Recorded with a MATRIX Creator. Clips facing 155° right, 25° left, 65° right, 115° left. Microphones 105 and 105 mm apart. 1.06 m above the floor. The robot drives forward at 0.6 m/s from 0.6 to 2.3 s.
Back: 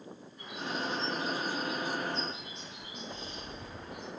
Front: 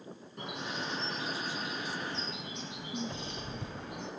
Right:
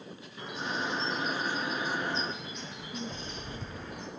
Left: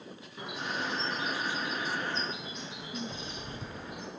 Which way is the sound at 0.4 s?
35° left.